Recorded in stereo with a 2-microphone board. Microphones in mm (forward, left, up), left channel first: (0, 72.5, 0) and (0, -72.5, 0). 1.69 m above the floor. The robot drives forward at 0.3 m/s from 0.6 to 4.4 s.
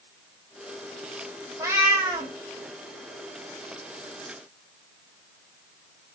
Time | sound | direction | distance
1.6 | a cat meowing | 20° right (ahead or behind) | 1.0 m